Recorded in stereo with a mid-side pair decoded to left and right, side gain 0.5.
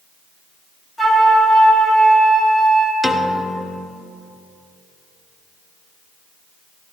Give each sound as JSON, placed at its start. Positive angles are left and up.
{"t": 1.0, "sound": "a flute", "azimuth_deg": 10, "distance_m": 4.5}
{"t": 3.0, "sound": "a piano", "azimuth_deg": 0, "distance_m": 1.3}